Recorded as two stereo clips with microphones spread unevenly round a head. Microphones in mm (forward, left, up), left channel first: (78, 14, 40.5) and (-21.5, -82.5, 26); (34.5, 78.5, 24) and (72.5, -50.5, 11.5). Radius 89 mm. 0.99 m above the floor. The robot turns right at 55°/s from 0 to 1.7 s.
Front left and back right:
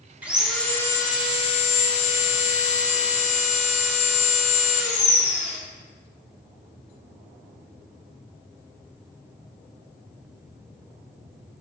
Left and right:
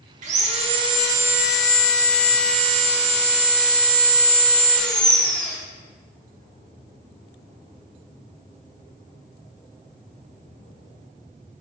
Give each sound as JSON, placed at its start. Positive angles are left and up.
{"t": 0.2, "sound": "sawing", "azimuth_deg": -55, "distance_m": 0.6}